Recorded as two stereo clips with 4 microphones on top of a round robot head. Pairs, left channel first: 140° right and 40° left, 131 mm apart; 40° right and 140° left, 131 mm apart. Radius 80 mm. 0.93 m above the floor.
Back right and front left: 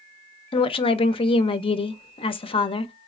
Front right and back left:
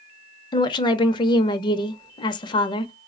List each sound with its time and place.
0.5 s a woman speaking: 95° right, 0.5 m